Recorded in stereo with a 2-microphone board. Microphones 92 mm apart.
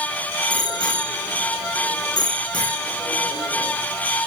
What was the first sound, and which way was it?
A bicycle bell, 50° left (ahead or behind).